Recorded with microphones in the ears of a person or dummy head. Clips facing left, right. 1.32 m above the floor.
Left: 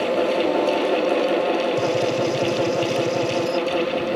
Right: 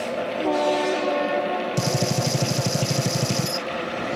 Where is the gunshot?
80° right.